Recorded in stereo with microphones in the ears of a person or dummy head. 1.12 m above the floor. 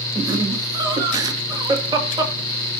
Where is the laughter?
20° right (ahead or behind), 2 m.